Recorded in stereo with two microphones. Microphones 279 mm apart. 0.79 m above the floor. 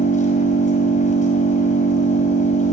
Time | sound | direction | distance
0.0 | an engine running | 25° left (ahead or behind) | 5 m